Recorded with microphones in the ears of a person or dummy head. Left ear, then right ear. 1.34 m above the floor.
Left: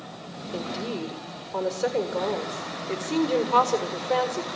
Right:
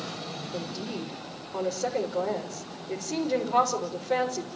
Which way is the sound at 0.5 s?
75° left (ahead or behind).